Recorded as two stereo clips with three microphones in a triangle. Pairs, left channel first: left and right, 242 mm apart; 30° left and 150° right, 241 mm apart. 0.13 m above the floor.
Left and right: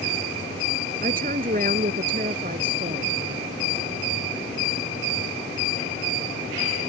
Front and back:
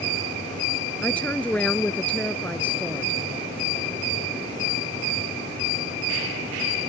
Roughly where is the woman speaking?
Ahead right.